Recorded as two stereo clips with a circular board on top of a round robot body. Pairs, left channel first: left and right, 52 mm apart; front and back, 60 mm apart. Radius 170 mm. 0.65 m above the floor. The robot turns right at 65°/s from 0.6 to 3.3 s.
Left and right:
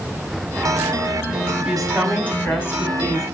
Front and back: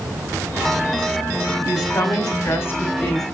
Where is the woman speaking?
15° right, 7 m; by 3.2 s 90° left, 7 m.